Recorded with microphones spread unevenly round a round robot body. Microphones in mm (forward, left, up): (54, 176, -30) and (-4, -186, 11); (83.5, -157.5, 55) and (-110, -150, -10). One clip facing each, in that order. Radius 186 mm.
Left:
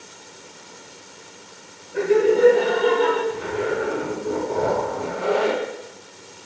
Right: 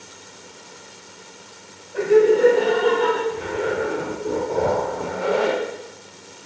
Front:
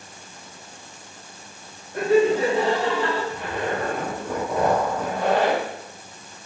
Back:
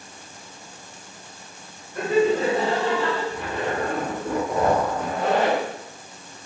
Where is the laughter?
35° left, 1.2 m.